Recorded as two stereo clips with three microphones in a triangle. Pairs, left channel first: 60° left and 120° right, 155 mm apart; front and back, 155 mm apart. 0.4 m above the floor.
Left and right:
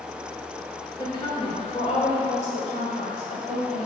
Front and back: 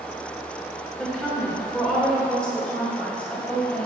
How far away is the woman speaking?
About 1.2 m.